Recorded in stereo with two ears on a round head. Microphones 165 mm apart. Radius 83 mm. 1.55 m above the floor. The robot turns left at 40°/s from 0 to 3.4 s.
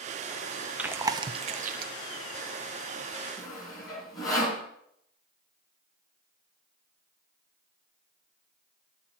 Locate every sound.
0.8 s chewing: 5° right (ahead or behind), 0.6 m; by 1.9 s 50° right (ahead or behind), 0.6 m
3.4 s sawing: 20° left (ahead or behind), 4 m